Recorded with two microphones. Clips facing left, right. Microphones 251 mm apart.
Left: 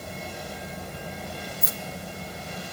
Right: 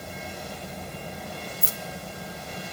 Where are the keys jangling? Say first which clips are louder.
Left 1 dB; 35° right (ahead or behind), 1.2 m.